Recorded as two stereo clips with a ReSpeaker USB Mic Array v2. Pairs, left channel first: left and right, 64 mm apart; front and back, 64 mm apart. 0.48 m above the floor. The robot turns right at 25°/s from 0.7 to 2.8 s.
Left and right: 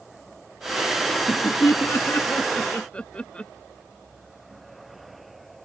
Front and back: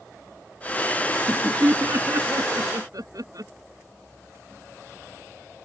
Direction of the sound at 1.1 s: 120° left.